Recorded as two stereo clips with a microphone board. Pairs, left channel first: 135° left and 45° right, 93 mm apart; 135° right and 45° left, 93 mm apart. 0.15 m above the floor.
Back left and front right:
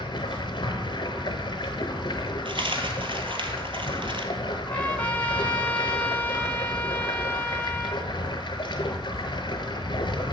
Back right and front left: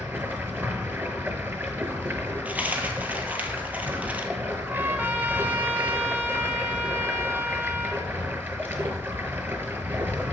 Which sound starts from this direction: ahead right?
A dropped coin, at 2.5 s.